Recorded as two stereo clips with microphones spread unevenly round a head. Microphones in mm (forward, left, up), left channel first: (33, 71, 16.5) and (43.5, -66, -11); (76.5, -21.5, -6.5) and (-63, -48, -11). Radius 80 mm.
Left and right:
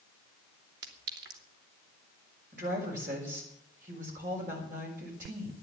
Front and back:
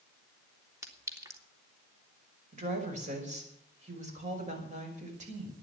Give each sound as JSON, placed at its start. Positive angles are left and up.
{"t": 0.8, "sound": "a clink", "azimuth_deg": -100, "distance_m": 2.5}
{"t": 2.5, "sound": "a woman speaking", "azimuth_deg": -130, "distance_m": 5.5}